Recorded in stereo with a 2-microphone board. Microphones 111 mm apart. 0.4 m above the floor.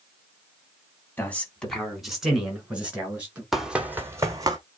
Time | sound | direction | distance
1.2 | a man speaking | 15° left (ahead or behind) | 2.5 m
3.5 | running footsteps | centre (ahead or behind) | 1.3 m